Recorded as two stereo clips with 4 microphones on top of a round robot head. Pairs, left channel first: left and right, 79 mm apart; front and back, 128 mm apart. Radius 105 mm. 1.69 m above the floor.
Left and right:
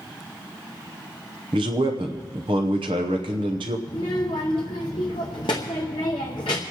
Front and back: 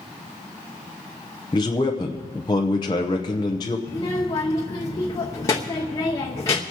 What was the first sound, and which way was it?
A man speaking, 65° right.